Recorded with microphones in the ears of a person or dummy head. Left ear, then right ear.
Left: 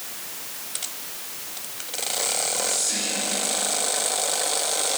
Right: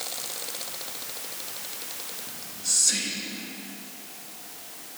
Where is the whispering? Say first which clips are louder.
Left 2 dB; 90° right, 1.9 m.